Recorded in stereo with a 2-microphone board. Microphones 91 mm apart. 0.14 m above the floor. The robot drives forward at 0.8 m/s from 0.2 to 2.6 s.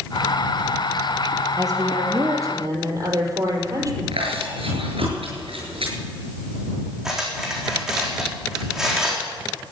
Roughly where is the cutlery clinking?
Centre.